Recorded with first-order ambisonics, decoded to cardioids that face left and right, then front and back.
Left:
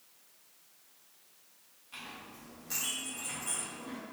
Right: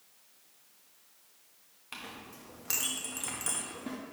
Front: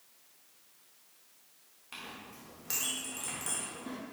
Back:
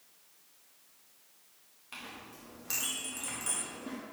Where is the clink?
90° right, 1.2 m.